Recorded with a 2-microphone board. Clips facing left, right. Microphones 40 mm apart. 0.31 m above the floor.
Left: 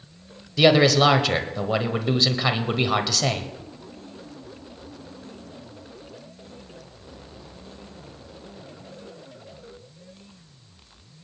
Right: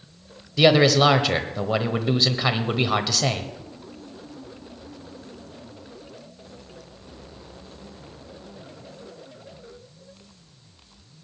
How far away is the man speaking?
About 1.1 m.